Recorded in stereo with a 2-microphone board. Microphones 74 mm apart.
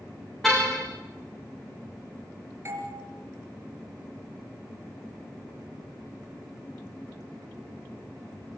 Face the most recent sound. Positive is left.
turn(degrees=-40)  # may be behind; listen again after turning